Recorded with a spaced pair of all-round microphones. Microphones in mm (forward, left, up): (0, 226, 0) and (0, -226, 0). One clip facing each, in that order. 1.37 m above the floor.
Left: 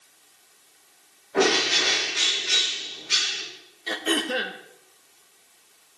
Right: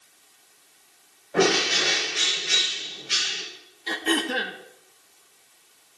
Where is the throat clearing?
10° right (ahead or behind), 1.3 m.